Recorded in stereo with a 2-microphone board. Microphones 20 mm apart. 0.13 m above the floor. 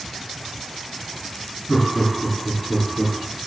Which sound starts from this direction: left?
Laughter, at 1.7 s.